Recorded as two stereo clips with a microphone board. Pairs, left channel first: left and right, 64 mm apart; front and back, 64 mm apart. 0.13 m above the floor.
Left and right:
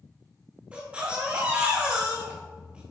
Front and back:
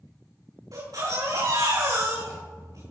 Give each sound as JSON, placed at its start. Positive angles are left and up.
{"t": 0.7, "sound": "a baby crying", "azimuth_deg": -160, "distance_m": 5.0}